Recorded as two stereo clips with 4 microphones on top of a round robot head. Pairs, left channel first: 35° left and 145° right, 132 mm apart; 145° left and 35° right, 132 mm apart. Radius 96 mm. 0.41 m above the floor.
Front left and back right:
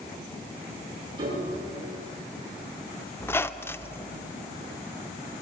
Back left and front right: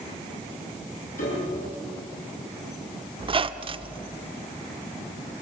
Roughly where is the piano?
Behind left.